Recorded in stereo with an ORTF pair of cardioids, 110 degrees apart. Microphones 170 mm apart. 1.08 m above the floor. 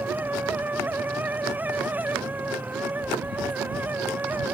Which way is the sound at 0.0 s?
10° right.